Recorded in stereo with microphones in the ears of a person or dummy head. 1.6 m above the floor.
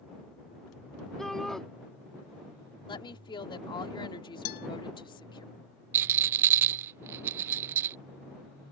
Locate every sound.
1.2 s a shout: centre (ahead or behind)
2.9 s a woman speaking: 25° left (ahead or behind)
4.5 s a guitar: 55° left (ahead or behind)
5.9 s a rattle: 15° right (ahead or behind)